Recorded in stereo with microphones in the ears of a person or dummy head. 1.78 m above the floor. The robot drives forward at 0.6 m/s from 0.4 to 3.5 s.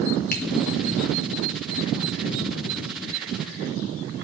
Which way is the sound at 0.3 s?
55° left (ahead or behind).